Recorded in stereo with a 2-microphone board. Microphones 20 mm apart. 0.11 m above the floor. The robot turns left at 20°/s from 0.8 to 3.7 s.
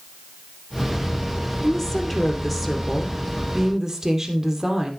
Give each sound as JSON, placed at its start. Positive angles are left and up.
{"t": 1.6, "sound": "a woman speaking", "azimuth_deg": 20, "distance_m": 2.5}